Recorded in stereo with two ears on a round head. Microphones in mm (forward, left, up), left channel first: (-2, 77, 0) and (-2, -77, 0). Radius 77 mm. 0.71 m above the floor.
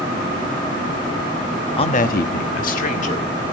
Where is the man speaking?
30° left (ahead or behind), 0.9 m; by 3.4 s 40° left (ahead or behind), 2.5 m.